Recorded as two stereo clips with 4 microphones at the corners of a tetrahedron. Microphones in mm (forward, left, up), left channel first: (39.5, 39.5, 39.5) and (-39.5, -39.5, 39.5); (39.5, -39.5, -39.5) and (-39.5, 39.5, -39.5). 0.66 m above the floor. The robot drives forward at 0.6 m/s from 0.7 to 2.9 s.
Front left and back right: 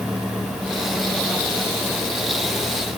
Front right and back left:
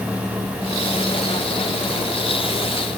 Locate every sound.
Only background noise.